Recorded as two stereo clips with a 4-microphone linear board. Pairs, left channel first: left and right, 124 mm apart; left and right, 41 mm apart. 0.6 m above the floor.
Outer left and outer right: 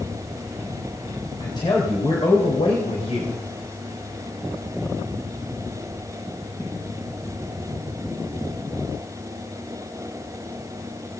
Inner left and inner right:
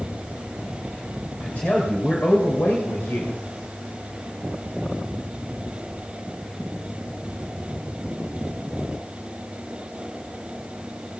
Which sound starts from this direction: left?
A man speaking, at 1.4 s.